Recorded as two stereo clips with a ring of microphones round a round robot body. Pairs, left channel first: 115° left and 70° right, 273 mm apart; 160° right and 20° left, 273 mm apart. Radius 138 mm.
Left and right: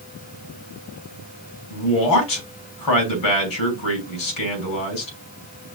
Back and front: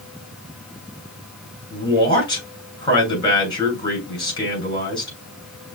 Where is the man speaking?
130° left, 3 m.